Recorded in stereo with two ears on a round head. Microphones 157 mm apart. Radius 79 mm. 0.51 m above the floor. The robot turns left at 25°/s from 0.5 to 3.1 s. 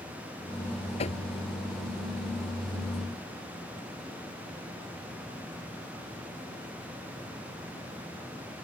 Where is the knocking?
40° left (ahead or behind); by 1.2 s 45° left (ahead or behind).